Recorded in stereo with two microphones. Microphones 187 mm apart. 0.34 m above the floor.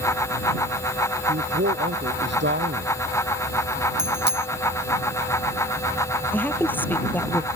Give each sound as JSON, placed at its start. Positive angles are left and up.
{"t": 1.3, "sound": "a man speaking", "side_deg": -70}
{"t": 4.0, "sound": "a bicycle bell", "side_deg": -60}
{"t": 6.3, "sound": "a woman speaking", "side_deg": 10}